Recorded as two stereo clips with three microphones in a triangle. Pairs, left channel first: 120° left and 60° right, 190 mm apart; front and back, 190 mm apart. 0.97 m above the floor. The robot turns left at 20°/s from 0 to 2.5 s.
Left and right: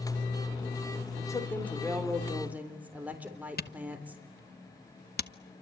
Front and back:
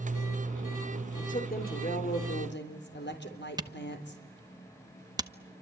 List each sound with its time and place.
1.2 s a woman speaking: 50° left, 3.5 m; by 4.2 s 20° left, 3.5 m
3.6 s a camera shutter: 115° left, 1.0 m